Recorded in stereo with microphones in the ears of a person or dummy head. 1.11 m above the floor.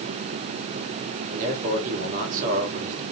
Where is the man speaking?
45° right (ahead or behind), 1.4 m.